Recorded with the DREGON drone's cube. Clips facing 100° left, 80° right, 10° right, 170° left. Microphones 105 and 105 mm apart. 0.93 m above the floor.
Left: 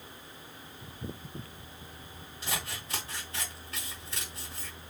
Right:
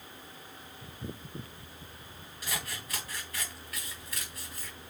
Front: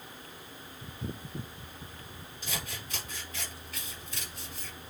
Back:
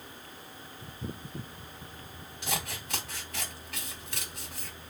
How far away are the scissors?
About 3 m.